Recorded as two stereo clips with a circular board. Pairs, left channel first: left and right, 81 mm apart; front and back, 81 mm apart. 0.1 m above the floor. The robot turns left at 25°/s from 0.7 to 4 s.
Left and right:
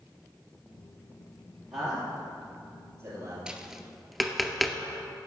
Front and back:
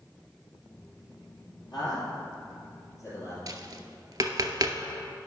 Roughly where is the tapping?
Behind.